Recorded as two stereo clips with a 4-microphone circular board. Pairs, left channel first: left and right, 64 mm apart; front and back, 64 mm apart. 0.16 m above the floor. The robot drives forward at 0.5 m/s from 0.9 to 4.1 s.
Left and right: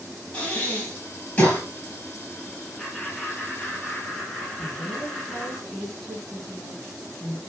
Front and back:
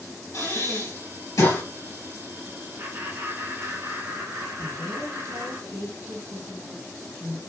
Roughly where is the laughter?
Behind.